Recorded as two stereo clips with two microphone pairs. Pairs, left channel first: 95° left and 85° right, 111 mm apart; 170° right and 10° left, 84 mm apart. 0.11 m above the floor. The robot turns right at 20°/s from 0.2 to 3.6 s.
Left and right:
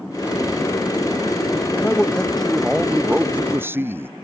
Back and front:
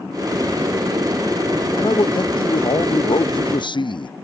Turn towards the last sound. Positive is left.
turn(degrees=-155)